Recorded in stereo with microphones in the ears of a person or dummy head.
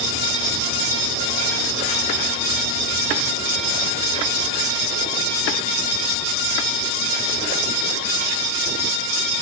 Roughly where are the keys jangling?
No keys jangling in this recording.